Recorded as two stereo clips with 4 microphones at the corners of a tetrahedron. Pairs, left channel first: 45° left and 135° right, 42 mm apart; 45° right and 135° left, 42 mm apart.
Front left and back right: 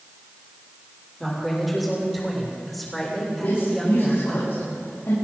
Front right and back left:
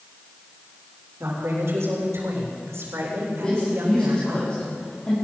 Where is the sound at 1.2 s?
140° left, 7.5 m; by 4.4 s 130° left, 9 m.